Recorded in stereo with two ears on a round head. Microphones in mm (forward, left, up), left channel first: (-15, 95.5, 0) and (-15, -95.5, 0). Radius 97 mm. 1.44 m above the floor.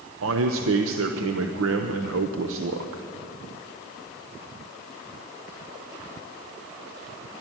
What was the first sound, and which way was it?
A man speaking, 75° right (ahead or behind).